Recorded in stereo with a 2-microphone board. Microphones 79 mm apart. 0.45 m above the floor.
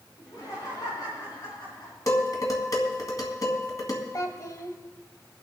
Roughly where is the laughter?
Left.